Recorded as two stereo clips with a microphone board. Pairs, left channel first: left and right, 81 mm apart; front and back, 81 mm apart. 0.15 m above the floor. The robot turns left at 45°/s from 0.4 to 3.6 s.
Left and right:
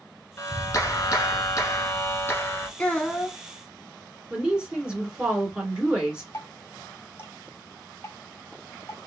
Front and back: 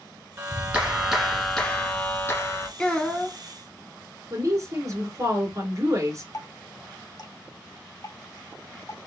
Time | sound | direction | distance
0.4 | a clap | 125° left | 1.3 m
2.8 | a child speaking | 60° left | 0.6 m
4.3 | a woman speaking | 160° right | 1.9 m
6.3 | dripping | 30° left | 1.6 m